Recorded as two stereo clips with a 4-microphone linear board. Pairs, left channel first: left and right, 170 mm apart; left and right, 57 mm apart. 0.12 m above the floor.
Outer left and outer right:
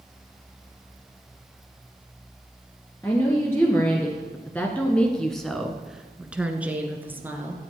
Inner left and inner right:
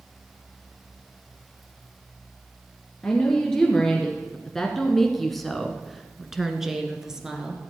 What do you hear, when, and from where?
3.0 s a woman speaking: 15° left (ahead or behind), 1.8 m; by 7.6 s 10° right (ahead or behind), 1.7 m